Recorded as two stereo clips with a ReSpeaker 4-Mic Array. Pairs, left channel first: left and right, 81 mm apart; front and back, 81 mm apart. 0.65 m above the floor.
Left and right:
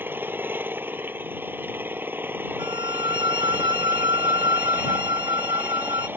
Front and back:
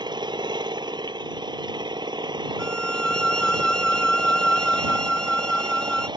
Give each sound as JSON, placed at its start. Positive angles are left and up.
{"t": 0.0, "sound": "an engine running", "azimuth_deg": -155}
{"t": 2.6, "sound": "a violin", "azimuth_deg": -80}